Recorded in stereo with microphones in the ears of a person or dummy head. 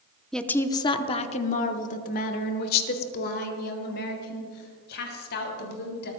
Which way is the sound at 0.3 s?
Centre (ahead or behind).